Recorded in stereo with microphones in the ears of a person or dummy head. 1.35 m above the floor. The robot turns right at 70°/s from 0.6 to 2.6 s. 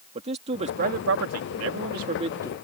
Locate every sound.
0.1 s a man speaking: 150° right; by 2.5 s 15° right